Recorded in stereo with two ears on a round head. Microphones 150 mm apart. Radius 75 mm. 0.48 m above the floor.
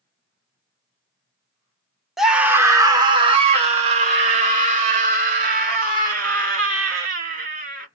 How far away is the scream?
About 0.8 m.